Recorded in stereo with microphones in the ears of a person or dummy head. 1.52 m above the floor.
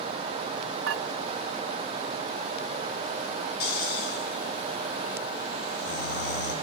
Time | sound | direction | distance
0.9 | dishes clattering | 70° right (ahead or behind) | 2 m
3.6 | snoring | 60° left (ahead or behind) | 3 m